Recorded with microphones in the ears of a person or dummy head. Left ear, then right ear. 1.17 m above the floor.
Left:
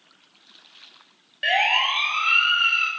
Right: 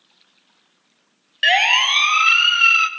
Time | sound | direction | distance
1.4 | a siren | 45° right (ahead or behind) | 2 m